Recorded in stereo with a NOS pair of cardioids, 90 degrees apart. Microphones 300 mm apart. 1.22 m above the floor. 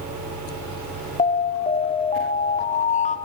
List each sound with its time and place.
0.0 s a fan: 70° right, 7 m
1.2 s an alarm: 25° left, 1.7 m